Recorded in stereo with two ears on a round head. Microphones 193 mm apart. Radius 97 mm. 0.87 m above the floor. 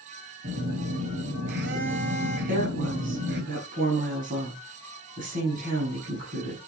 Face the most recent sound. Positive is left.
turn(degrees=-40)  # may be behind; listen again after turning